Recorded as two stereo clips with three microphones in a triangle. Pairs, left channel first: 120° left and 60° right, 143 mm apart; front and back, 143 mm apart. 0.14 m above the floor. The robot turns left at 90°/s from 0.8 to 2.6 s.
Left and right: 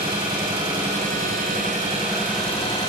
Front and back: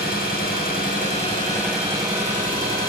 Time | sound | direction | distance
0.0 | an engine running | 5° right | 3 m